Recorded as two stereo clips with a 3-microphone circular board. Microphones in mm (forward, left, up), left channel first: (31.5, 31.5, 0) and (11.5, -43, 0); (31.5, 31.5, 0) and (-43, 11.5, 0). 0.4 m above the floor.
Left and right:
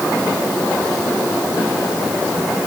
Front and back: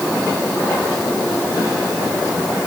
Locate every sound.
Only background noise.